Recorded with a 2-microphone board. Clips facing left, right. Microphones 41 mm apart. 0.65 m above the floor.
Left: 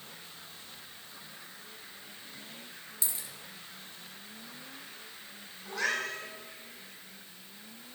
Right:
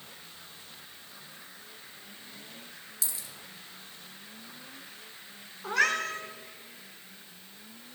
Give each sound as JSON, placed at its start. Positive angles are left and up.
{"t": 3.0, "sound": "a dropped coin", "side_deg": 30, "distance_m": 2.0}
{"t": 5.6, "sound": "a cat meowing", "side_deg": -80, "distance_m": 3.5}